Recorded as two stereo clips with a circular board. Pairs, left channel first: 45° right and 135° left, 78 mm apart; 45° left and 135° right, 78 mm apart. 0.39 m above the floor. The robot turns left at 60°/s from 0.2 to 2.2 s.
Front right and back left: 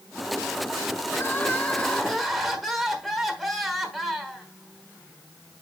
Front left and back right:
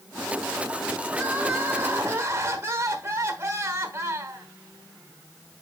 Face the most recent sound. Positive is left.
turn(degrees=-140)